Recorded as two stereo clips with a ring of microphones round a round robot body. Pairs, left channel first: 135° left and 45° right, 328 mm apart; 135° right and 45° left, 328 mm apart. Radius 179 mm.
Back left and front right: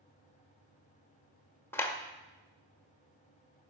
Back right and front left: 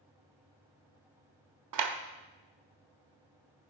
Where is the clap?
55° left, 1.1 m.